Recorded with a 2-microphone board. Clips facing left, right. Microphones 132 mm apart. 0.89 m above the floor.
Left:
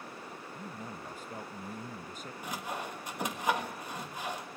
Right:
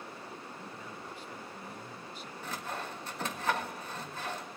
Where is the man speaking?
45° left (ahead or behind), 0.7 m.